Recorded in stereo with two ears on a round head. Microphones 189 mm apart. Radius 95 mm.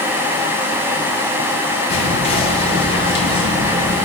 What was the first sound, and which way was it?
Whispering, 25° left (ahead or behind).